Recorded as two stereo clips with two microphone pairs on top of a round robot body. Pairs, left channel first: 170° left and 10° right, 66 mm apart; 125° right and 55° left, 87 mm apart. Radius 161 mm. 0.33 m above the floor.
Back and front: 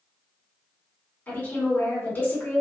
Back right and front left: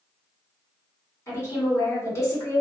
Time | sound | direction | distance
1.3 | a woman speaking | 135° right | 1.9 m